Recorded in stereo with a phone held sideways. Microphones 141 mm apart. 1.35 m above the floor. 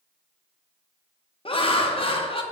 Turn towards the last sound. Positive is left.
turn(degrees=45)  # may be behind; listen again after turning